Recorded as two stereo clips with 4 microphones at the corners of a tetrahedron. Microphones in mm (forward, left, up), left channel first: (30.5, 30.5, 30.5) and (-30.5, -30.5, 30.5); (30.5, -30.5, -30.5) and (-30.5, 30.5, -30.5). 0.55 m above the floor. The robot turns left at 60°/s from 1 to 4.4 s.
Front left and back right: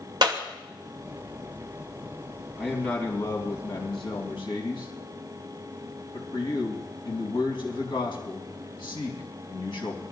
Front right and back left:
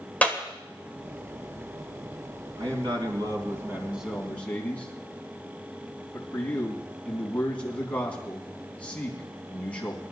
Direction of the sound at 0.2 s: 115° right.